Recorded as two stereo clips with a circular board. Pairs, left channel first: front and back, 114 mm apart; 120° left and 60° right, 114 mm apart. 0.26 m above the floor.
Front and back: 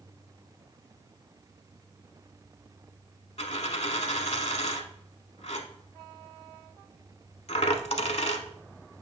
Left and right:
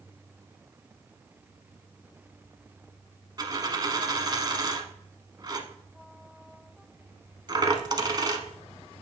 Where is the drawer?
No drawer in this recording.